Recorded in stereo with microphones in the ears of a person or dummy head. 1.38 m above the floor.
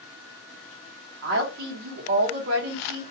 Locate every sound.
1.2 s a woman speaking: 55° right (ahead or behind), 1.3 m